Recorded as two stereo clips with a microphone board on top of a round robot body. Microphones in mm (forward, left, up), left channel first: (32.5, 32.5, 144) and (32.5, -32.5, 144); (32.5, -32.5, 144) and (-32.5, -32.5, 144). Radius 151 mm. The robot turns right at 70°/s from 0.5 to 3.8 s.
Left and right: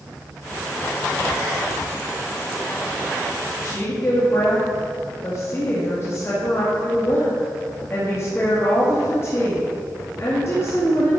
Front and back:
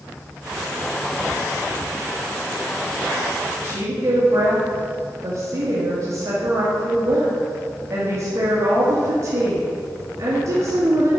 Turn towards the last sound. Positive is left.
turn(degrees=140)